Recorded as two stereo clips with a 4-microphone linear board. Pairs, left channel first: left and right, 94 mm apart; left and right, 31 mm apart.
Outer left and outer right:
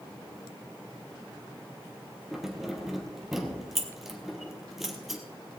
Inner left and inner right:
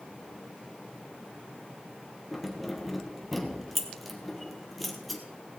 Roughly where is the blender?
I don't hear a blender.